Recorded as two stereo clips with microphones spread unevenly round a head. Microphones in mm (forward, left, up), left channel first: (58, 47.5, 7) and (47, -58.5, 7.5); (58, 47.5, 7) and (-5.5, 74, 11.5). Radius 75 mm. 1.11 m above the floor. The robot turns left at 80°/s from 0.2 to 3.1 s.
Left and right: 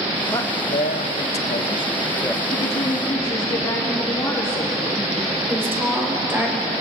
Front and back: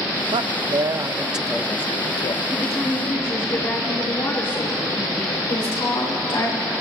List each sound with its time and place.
0.3 s a man speaking: 160° left, 0.6 m; by 2.4 s 10° right, 0.6 m
2.5 s a woman speaking: 75° left, 3 m; by 5.4 s 25° left, 3 m
5.5 s a woman speaking: 25° right, 4.5 m